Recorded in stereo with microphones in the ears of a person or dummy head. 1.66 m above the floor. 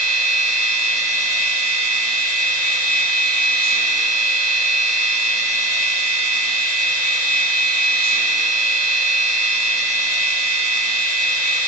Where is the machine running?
70° left (ahead or behind), 1.1 m.